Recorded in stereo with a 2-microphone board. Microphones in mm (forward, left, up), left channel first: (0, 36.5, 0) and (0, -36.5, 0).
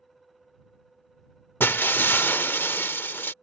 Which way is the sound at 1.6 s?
30° left (ahead or behind).